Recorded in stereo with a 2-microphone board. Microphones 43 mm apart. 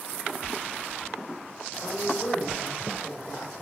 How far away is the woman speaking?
About 7 m.